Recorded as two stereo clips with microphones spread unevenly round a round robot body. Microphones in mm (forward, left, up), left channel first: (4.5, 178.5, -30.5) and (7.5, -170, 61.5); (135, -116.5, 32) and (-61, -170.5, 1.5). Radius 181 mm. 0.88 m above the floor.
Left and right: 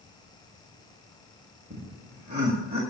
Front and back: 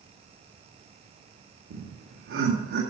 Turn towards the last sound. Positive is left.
turn(degrees=-165)